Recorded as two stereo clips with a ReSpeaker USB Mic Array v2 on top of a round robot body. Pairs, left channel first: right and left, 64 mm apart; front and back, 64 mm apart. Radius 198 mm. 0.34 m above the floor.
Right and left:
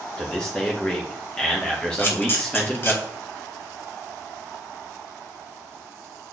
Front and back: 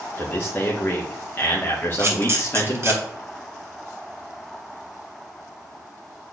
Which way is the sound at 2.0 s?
135° right.